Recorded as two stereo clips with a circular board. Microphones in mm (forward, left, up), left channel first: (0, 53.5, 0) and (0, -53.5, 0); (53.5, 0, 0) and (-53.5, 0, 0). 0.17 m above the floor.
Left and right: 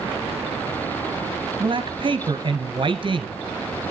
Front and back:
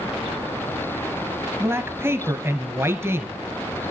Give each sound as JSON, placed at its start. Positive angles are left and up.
{"t": 1.6, "sound": "a man speaking", "azimuth_deg": -115, "distance_m": 2.0}